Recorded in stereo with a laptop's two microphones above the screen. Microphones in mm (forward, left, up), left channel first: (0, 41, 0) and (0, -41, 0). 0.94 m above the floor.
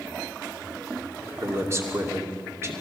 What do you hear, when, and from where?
1.4 s a man speaking: 35° right (ahead or behind), 2.5 m